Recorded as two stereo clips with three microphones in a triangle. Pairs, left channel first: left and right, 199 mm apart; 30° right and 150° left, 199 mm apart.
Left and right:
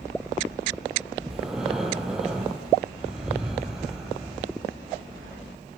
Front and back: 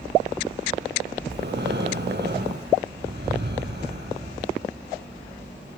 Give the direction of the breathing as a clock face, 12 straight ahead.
6 o'clock.